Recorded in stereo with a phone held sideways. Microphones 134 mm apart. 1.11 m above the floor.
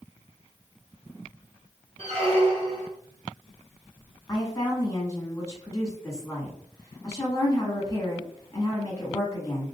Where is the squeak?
50° right (ahead or behind), 1.8 m.